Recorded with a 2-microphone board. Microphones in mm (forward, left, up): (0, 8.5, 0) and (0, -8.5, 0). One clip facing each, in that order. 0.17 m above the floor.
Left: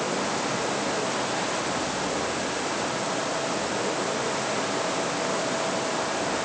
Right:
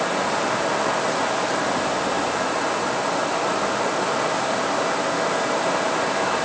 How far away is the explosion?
I don't hear an explosion.